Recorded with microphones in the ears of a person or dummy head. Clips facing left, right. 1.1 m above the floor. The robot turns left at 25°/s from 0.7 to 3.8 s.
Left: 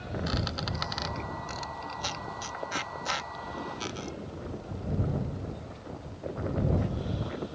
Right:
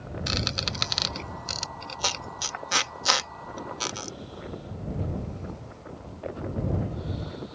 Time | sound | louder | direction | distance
0.3 | a squeak | right 3 dB | 30° right (ahead or behind) | ?